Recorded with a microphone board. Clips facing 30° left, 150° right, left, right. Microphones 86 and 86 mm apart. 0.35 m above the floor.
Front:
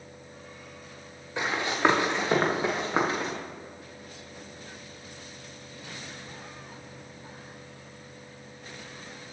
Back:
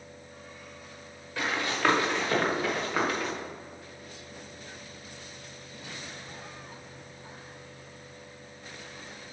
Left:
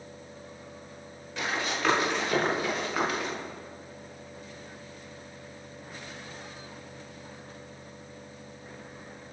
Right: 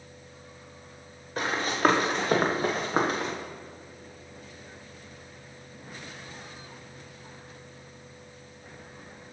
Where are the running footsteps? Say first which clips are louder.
Front 3 dB, right 5 dB; 40° right, 3.5 m; by 3.3 s 35° right, 2.5 m.